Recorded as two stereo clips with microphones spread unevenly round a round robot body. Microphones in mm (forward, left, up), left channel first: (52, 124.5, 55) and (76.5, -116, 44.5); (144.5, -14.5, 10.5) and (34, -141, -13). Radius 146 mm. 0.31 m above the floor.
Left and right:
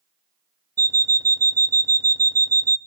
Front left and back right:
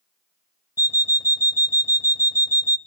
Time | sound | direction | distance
0.8 | an alarm clock | 20° right | 0.6 m